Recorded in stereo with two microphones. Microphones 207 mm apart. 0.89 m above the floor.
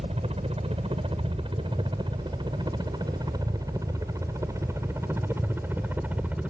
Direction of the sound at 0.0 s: 30° right (ahead or behind).